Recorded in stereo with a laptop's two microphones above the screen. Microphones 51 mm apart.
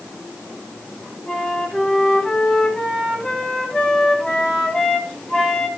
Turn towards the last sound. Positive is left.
turn(degrees=10)  # may be behind; listen again after turning